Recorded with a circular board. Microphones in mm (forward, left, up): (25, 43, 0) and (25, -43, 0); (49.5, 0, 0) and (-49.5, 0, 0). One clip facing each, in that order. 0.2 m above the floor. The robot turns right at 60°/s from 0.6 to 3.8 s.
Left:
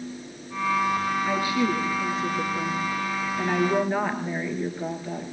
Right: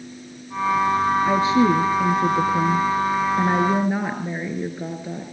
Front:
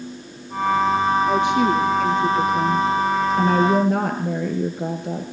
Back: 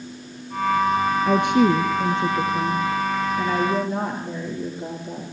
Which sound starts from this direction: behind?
A woman speaking, at 1.2 s.